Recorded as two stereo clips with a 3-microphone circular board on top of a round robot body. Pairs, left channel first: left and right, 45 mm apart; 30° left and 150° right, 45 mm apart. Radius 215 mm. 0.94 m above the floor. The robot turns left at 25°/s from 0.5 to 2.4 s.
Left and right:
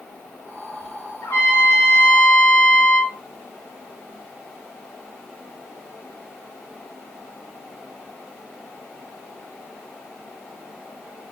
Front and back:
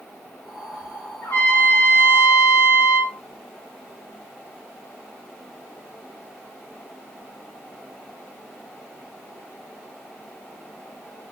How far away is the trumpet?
About 5 m.